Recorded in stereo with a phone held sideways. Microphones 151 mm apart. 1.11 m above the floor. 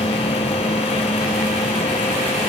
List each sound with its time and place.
0.0 s a machine running: 40° left (ahead or behind)